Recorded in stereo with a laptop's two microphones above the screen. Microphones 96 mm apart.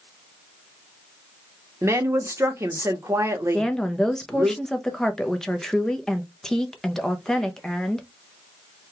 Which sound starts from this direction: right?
A woman speaking, at 1.8 s.